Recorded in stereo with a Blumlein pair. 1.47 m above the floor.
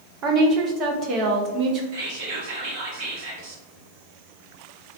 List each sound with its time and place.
0.2 s a woman speaking: 30° right, 0.7 m
1.9 s whispering: 45° right, 1.0 m